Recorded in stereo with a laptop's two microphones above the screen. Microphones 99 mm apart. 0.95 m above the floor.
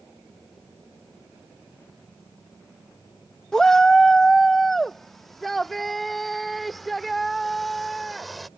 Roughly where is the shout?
Centre.